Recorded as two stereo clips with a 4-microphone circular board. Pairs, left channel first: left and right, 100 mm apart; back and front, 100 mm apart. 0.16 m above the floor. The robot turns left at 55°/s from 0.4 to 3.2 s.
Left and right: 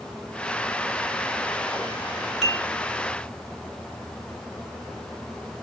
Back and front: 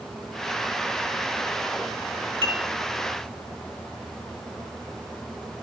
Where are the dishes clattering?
Straight ahead, 1.3 m; by 2.7 s 15° right, 1.3 m.